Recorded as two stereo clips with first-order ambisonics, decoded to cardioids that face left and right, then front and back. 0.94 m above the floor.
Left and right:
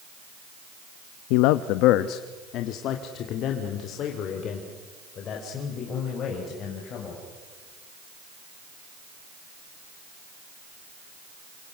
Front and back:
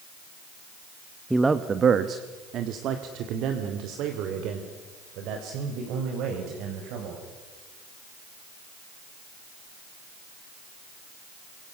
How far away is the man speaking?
About 0.7 m.